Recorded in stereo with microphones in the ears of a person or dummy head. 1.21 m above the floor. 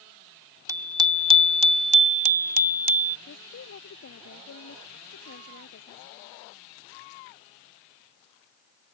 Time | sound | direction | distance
0.7 | a bicycle bell | 10° right (ahead or behind) | ?
3.3 | a woman speaking | 80° left | ?